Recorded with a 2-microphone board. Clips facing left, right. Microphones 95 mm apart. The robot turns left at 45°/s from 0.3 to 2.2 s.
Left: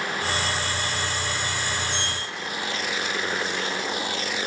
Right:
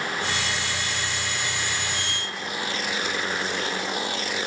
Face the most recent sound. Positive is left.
turn(degrees=-35)  # may be behind; listen again after turning